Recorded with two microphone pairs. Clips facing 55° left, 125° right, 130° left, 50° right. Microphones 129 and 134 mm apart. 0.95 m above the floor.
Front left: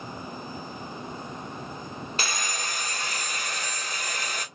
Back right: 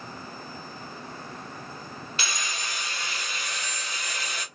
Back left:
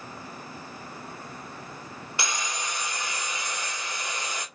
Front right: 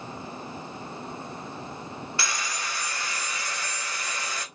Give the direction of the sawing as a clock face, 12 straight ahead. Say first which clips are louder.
Front left 2 dB, back left 2 dB; 10 o'clock.